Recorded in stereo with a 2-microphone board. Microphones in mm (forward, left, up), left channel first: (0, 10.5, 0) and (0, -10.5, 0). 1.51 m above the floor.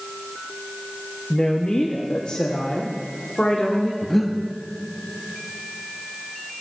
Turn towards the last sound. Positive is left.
turn(degrees=10)  # may be behind; listen again after turning